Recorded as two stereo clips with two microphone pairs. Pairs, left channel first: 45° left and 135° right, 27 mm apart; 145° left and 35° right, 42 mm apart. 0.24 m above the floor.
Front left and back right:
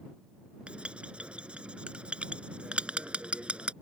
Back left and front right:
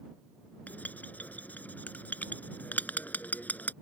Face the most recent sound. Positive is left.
turn(degrees=-170)